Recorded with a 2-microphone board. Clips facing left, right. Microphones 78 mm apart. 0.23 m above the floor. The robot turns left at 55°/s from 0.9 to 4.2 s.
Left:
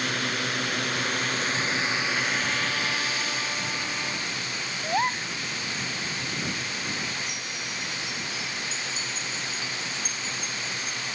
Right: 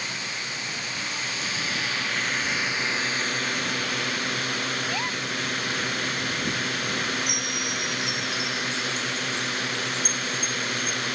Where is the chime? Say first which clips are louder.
Right 5 dB; 70° right (ahead or behind).